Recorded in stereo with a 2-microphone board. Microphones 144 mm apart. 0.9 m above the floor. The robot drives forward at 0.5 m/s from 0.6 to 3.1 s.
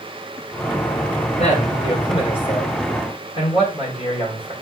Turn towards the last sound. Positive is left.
turn(degrees=40)  # may be behind; listen again after turning